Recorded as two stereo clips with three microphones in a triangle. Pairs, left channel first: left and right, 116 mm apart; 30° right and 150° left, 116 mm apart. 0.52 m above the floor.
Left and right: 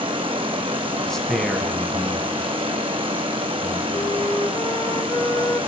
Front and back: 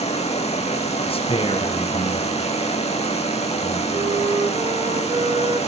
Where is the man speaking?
5° left, 4 m.